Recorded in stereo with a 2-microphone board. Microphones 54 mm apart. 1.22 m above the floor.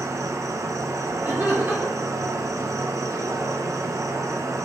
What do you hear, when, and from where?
0.0 s an insect: 80° right, 0.9 m
1.2 s laughter: 35° right (ahead or behind), 2.5 m